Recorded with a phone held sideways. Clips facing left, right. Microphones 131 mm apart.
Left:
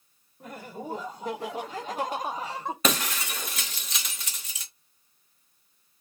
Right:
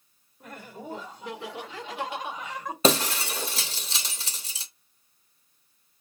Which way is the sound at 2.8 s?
30° right (ahead or behind).